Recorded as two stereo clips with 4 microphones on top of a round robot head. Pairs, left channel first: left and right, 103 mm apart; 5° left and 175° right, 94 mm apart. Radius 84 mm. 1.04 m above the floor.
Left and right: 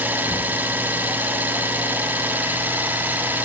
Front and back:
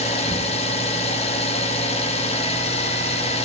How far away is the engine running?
About 4.5 m.